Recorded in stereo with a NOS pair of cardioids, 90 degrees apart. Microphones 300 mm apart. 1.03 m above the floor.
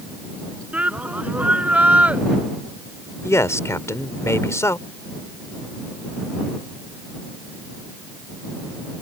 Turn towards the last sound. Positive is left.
turn(degrees=10)